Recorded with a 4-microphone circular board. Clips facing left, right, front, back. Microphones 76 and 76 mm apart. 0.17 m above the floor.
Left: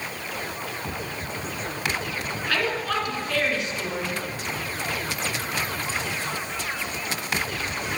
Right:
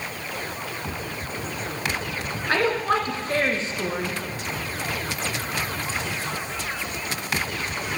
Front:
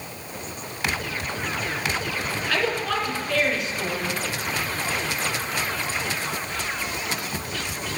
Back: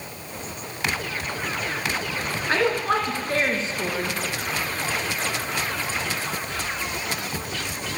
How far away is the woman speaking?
About 2.0 m.